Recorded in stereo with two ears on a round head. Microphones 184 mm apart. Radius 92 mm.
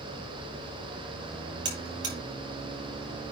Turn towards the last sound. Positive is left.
turn(degrees=-60)  # may be behind; listen again after turning